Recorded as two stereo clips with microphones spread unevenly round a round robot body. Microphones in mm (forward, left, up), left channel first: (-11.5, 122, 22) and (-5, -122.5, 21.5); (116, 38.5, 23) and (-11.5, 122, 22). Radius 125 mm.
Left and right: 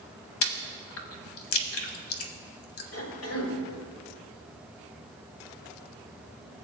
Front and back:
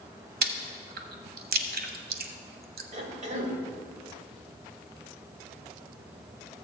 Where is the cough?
115° left, 2.5 m.